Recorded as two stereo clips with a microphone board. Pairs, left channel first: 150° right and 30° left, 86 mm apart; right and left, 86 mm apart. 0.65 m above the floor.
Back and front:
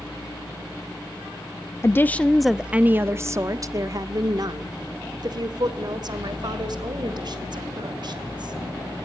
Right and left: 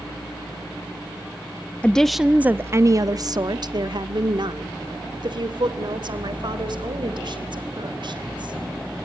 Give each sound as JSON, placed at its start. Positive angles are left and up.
{"t": 1.8, "sound": "a woman speaking", "azimuth_deg": -155, "distance_m": 0.5}